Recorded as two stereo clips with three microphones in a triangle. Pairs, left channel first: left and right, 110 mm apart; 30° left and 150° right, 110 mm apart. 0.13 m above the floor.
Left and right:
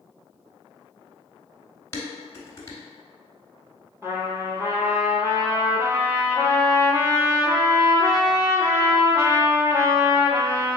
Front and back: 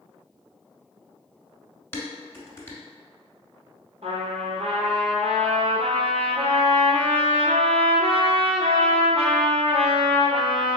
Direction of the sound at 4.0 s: 155° right.